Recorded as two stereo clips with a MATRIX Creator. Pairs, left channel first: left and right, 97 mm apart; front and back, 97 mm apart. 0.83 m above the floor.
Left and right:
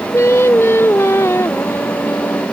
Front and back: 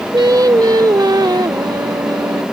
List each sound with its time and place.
0.1 s singing: 145° left